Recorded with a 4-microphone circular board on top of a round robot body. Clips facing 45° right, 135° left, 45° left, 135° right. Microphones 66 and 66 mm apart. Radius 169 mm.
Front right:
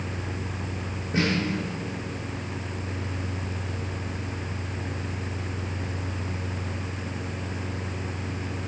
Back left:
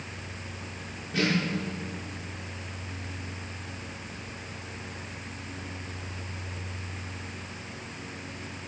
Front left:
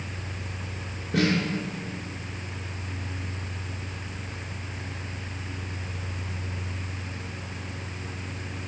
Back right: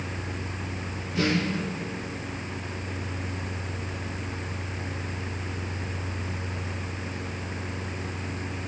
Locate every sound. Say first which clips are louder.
1.1 s a snare drum: front right 2 dB, front left 2 dB; 20° left, 7 m